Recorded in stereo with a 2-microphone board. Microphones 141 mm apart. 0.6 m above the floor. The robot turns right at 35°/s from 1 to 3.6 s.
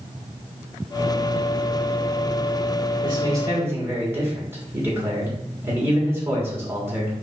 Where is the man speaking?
35° right (ahead or behind), 1.6 m; by 7.1 s 20° right (ahead or behind), 1.6 m.